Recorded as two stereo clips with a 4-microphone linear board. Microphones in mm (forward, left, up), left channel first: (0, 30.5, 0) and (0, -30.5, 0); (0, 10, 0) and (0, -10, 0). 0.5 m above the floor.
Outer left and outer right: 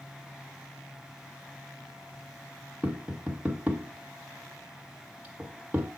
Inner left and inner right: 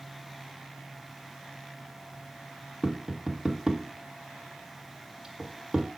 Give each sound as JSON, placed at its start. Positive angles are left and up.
{"t": 2.8, "sound": "tapping", "side_deg": -20, "distance_m": 1.5}